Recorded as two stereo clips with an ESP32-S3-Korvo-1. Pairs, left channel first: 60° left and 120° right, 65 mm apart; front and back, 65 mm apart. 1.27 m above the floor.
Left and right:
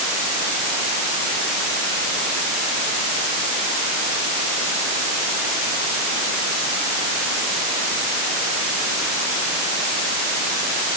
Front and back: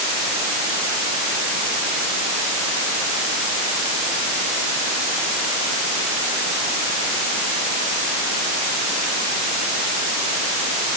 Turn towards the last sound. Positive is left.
No sound to turn to.